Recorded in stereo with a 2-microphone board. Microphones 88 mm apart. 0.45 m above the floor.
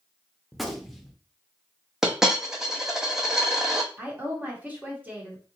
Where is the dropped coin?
5° right (ahead or behind), 0.8 m.